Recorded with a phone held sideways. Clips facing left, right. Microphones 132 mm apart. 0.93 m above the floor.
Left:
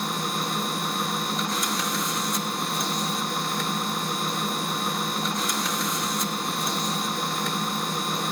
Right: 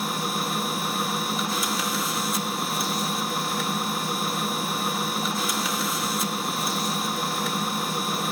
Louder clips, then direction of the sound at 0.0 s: Right 1 dB; 5° right (ahead or behind).